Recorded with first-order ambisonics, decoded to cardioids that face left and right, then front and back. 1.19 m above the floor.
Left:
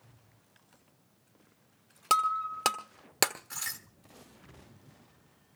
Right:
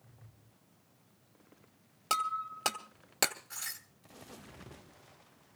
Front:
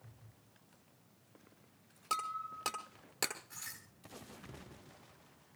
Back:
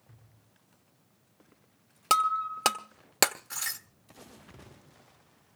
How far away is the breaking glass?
About 1.2 m.